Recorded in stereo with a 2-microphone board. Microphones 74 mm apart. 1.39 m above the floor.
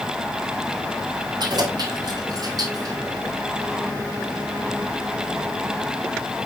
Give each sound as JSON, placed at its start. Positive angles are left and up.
{"t": 1.4, "sound": "keys jangling", "side_deg": -75, "distance_m": 3.5}